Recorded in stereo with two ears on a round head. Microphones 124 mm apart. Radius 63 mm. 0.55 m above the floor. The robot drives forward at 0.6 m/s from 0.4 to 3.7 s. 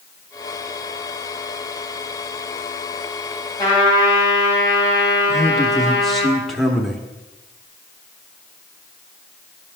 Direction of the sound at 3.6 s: 25° left (ahead or behind).